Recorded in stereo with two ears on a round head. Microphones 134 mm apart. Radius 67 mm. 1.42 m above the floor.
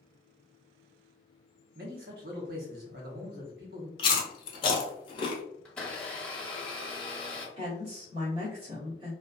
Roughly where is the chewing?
Left.